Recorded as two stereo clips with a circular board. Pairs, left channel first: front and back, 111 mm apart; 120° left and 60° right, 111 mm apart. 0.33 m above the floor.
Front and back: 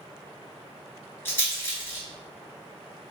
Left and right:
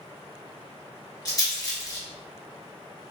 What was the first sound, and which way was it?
A rattle, 65° left.